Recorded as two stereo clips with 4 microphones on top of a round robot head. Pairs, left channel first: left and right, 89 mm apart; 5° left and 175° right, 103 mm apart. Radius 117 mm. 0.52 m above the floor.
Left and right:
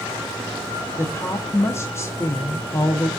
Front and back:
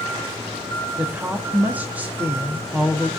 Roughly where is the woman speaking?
Behind left.